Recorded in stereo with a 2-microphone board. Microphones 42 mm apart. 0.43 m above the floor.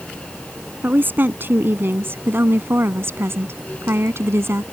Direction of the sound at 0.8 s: 50° right (ahead or behind).